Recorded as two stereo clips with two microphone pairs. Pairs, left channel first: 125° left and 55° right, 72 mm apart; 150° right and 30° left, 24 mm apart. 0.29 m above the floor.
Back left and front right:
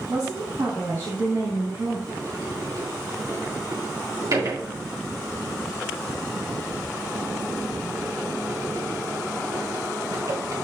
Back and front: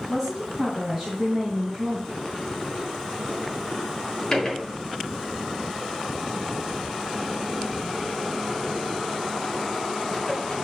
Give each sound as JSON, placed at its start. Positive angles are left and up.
{"t": 0.1, "sound": "a woman speaking", "azimuth_deg": -55, "distance_m": 2.5}
{"t": 2.1, "sound": "a sliding door", "azimuth_deg": -80, "distance_m": 3.5}